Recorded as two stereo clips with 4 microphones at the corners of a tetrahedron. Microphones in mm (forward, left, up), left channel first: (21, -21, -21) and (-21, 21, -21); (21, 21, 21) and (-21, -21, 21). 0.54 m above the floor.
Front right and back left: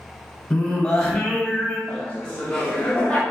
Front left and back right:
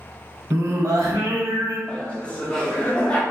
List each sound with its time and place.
0.5 s singing: 120° right, 0.6 m
1.9 s laughter: straight ahead, 0.7 m